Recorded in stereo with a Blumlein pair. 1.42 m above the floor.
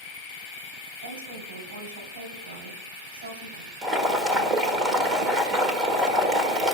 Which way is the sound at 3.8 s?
20° right.